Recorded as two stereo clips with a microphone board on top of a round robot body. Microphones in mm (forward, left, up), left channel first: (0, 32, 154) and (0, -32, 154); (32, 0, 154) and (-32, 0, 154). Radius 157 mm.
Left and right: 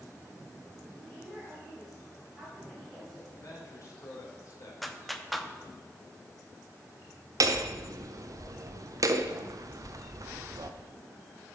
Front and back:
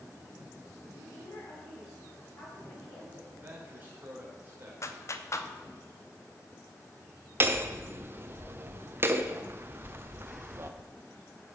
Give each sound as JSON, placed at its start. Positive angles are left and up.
{"t": 1.0, "sound": "a woman speaking", "azimuth_deg": -5, "distance_m": 4.5}
{"t": 3.3, "sound": "a man speaking", "azimuth_deg": 125, "distance_m": 3.0}
{"t": 4.8, "sound": "a clap", "azimuth_deg": 0, "distance_m": 1.0}
{"t": 7.4, "sound": "hammering", "azimuth_deg": -125, "distance_m": 0.7}